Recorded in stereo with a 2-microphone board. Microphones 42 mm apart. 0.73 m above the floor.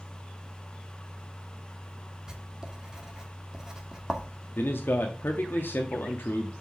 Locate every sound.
2.3 s writing: 20° right (ahead or behind), 1.3 m
4.6 s a man speaking: 60° left (ahead or behind), 0.9 m